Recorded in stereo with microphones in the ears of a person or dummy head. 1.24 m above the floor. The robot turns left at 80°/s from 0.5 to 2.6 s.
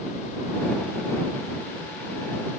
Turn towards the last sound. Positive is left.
No sound to turn to.